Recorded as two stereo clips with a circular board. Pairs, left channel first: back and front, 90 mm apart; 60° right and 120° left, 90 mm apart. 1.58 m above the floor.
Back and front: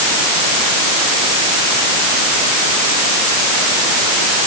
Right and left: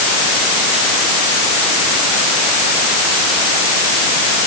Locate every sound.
Only background noise.